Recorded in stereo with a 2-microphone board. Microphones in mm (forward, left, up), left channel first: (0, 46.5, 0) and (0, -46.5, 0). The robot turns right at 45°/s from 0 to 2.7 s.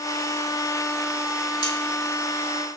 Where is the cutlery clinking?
45° left (ahead or behind), 0.8 m; by 1.8 s 50° left (ahead or behind), 0.8 m.